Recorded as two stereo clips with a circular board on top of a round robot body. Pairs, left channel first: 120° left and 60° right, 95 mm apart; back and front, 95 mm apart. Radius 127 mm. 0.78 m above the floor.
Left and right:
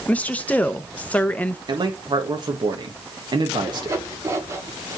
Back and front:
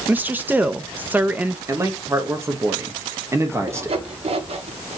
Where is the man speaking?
50° right, 1.5 m.